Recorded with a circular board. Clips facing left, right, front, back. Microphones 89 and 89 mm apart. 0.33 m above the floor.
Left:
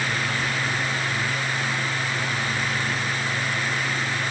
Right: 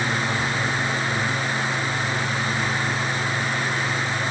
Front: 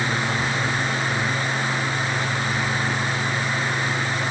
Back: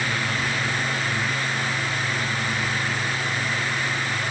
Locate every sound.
Only background noise.